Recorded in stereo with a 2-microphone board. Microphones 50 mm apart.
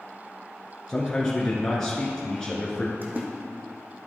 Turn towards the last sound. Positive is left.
turn(degrees=-40)  # may be behind; listen again after turning